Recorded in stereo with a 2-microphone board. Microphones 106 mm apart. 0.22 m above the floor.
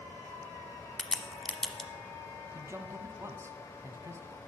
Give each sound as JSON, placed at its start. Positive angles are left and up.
{"t": 1.0, "sound": "a crack", "side_deg": 5, "distance_m": 1.0}
{"t": 2.5, "sound": "a man speaking", "side_deg": -25, "distance_m": 1.3}